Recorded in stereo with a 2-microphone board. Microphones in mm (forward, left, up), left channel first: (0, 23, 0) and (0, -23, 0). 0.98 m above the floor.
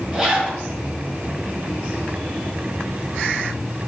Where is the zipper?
20° right (ahead or behind), 1.6 m.